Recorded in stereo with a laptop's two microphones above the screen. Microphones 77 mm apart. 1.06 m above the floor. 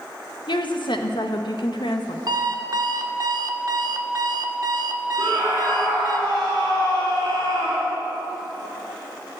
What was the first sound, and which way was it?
A woman speaking, 70° left (ahead or behind).